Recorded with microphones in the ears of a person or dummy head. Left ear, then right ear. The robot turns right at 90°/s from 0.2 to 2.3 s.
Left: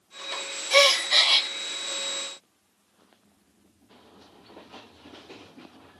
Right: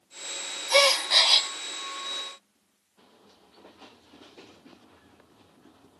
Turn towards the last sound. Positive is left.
turn(degrees=45)